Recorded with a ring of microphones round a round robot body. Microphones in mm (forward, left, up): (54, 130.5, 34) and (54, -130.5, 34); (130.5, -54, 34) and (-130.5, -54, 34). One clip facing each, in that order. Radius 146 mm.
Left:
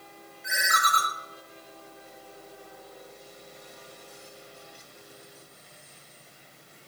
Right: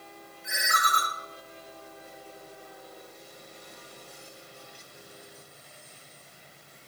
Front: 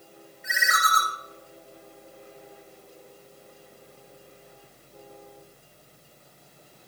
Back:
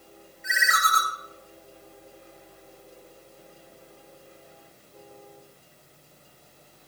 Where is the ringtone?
170° left, 1.9 m.